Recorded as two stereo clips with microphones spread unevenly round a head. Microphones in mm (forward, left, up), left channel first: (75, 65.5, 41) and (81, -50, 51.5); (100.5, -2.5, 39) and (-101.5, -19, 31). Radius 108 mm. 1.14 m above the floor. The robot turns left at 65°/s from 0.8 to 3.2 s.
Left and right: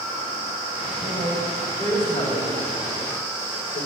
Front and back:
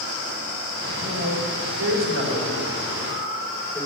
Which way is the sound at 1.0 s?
140° right.